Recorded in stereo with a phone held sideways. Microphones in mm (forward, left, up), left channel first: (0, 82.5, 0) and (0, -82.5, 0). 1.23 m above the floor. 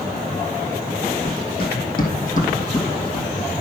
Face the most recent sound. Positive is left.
turn(degrees=10)  # may be behind; listen again after turning